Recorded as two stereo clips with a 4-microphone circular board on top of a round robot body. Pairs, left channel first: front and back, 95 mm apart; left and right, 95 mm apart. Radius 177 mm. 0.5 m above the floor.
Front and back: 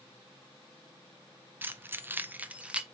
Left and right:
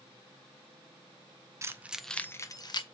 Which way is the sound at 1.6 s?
125° right.